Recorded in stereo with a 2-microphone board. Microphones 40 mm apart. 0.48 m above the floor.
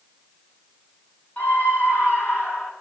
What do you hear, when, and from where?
1.4 s a scream: 45° left (ahead or behind), 4.5 m; by 2.7 s 65° left (ahead or behind), 4.5 m